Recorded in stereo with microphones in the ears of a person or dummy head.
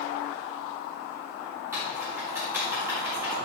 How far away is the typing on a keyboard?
About 4 m.